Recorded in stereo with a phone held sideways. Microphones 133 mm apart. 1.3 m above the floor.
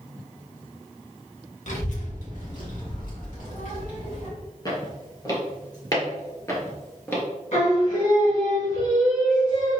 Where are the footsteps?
30° left (ahead or behind), 1.7 m; by 7.2 s 15° left (ahead or behind), 1.3 m.